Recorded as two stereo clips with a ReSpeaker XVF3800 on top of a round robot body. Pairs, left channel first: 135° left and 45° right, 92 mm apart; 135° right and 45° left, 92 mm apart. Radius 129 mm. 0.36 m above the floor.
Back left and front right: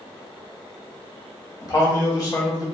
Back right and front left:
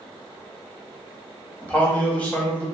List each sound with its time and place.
1.6 s a man speaking: 160° left, 1.2 m